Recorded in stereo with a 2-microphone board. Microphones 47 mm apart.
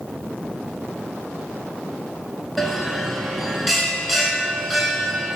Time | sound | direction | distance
2.6 | a bell | centre (ahead or behind) | 0.5 m